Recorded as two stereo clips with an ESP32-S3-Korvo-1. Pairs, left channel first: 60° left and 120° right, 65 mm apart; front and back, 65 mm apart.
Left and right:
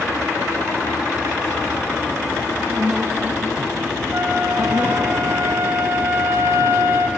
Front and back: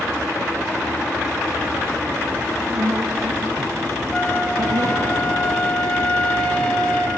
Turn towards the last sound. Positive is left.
turn(degrees=-70)